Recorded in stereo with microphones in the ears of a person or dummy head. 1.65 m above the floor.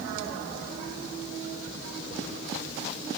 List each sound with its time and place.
Only background noise.